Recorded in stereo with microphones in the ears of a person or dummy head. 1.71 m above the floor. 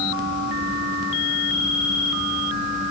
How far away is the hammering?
I don't hear hammering.